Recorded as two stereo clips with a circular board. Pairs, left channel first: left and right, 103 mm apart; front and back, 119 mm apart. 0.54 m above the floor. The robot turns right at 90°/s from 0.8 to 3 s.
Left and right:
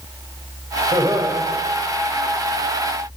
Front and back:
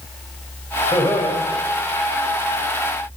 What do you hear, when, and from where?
0.9 s laughter: 55° right, 2.5 m; by 1.4 s 15° right, 2.5 m